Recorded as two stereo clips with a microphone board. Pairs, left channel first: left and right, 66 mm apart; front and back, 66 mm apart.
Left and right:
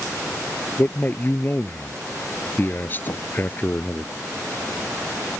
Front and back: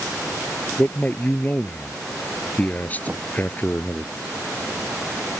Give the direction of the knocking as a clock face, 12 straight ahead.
8 o'clock.